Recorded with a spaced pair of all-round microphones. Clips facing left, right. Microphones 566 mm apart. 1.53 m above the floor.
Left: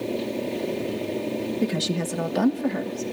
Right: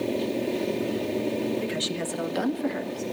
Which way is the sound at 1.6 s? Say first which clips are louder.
Left 4 dB; 65° left (ahead or behind).